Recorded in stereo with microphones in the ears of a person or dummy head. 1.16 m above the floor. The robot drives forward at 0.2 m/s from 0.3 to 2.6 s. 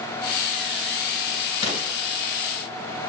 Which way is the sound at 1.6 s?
35° left (ahead or behind).